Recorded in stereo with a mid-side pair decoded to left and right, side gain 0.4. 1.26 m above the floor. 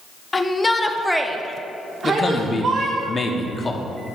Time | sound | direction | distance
0.3 | a shout | 35° left | 1.0 m
2.0 | a man speaking | 35° left | 1.1 m